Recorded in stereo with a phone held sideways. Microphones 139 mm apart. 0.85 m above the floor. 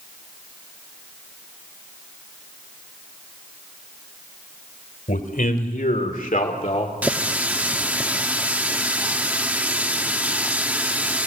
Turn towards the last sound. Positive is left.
turn(degrees=-10)  # may be behind; listen again after turning